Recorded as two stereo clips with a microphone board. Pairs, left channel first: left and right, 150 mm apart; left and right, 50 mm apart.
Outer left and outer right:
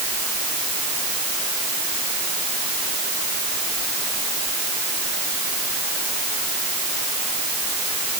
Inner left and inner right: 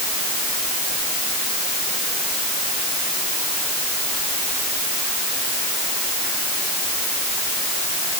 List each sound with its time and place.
Only background noise.